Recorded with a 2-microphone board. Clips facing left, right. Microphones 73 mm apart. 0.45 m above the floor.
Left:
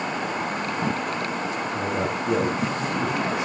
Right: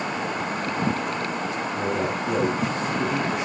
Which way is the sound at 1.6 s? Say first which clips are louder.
Right 1 dB; 60° left (ahead or behind).